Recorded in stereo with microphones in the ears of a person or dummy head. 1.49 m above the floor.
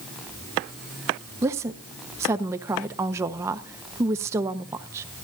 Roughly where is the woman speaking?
Centre.